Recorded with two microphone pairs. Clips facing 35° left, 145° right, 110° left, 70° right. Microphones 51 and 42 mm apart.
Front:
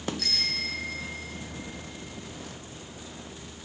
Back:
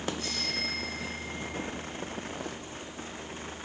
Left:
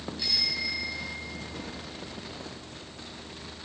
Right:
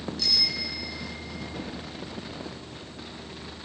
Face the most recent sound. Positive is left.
turn(degrees=40)